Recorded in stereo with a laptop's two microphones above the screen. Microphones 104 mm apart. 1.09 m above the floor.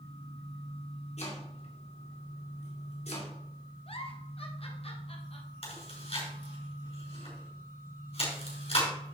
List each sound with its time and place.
1.2 s chopping: 85° left, 2.5 m
3.9 s a giggle: 65° left (ahead or behind), 1.5 m
5.6 s chewing: 70° left (ahead or behind), 5.5 m